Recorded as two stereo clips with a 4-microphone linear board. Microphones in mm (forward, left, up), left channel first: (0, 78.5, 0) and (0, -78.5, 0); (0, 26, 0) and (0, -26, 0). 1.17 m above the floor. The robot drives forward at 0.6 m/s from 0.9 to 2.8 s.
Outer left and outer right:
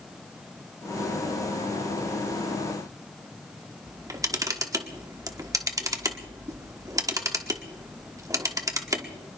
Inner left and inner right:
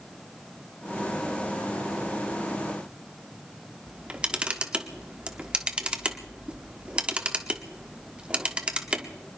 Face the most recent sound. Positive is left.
turn(degrees=-20)  # may be behind; listen again after turning